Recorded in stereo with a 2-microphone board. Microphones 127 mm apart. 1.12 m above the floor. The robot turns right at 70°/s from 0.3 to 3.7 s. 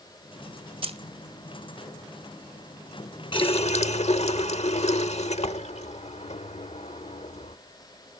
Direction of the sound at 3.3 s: 40° left (ahead or behind).